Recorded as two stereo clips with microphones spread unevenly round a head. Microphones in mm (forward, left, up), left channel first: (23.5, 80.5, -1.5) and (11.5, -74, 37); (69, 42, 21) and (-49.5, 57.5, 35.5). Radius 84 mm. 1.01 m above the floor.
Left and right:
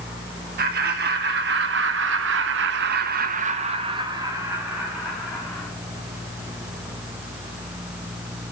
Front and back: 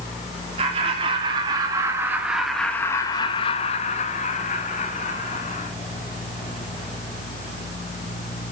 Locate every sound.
0.6 s laughter: 135° right, 3 m; by 5.7 s straight ahead, 3 m